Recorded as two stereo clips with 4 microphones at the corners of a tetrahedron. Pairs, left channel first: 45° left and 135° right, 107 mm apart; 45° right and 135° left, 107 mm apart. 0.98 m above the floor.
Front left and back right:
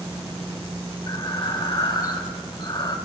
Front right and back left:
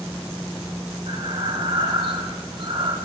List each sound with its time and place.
1.1 s breathing: 95° left, 1.6 m